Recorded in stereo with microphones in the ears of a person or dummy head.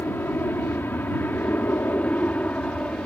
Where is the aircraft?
10° left (ahead or behind); by 3.1 s 5° left (ahead or behind).